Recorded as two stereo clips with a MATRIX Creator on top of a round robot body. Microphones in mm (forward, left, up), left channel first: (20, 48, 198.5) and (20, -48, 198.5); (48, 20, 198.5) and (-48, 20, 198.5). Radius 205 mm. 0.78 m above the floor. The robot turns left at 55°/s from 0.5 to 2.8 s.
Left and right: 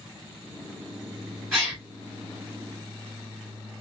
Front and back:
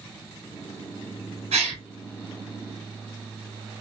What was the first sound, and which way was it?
A gasp, 175° right.